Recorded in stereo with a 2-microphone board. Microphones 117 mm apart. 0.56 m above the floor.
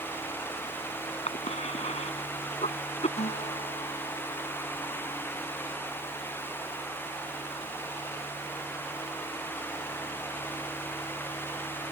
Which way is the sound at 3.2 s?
80° left.